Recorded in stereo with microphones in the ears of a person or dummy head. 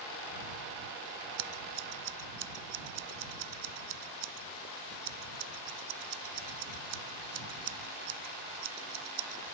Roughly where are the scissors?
Right.